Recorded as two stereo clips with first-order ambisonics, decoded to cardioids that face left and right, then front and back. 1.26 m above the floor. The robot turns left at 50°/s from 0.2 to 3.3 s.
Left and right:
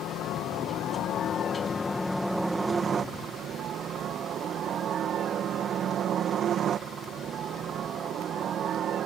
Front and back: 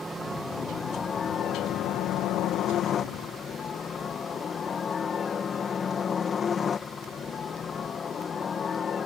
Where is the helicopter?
100° left; by 9.1 s 55° right.